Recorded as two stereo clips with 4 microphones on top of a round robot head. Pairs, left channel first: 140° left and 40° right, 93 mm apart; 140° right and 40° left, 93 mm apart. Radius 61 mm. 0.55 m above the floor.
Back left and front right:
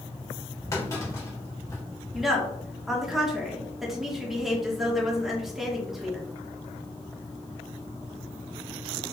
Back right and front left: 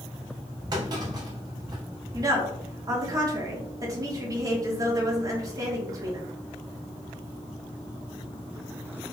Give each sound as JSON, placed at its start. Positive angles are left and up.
{"t": 0.7, "sound": "a clunk", "azimuth_deg": 85, "distance_m": 1.5}
{"t": 2.1, "sound": "a woman speaking", "azimuth_deg": 45, "distance_m": 1.3}